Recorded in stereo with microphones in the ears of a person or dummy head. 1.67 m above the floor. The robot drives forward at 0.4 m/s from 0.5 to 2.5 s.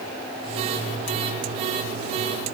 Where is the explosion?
No explosion in this recording.